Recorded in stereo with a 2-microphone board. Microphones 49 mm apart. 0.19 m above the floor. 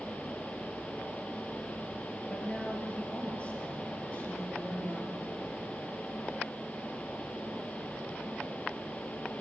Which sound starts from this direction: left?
A woman speaking, at 2.3 s.